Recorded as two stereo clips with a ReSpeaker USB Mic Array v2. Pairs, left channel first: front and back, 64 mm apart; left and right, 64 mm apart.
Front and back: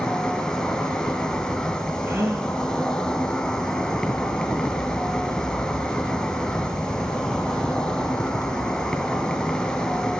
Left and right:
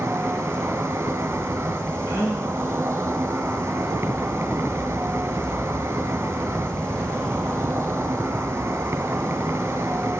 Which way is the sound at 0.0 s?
70° right.